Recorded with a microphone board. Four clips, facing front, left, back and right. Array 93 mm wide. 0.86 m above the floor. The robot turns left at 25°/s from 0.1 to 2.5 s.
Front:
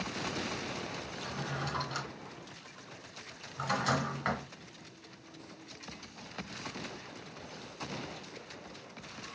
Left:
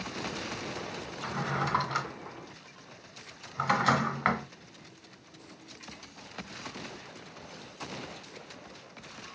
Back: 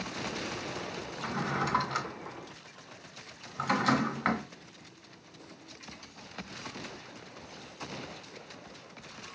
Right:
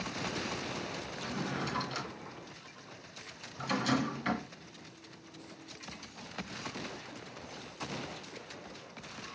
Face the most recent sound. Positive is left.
turn(degrees=105)